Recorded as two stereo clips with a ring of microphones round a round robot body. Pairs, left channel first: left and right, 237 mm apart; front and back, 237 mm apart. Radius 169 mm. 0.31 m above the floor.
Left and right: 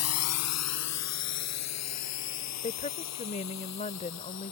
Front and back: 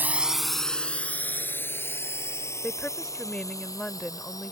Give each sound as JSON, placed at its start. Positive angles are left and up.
{"t": 0.0, "sound": "a drone", "azimuth_deg": 100}
{"t": 2.6, "sound": "a woman speaking", "azimuth_deg": 85}